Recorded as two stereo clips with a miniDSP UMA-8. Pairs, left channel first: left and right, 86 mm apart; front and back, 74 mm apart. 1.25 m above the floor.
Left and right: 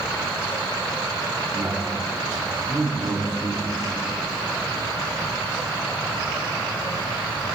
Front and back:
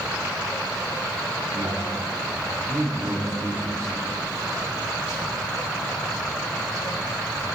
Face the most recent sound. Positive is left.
turn(degrees=-135)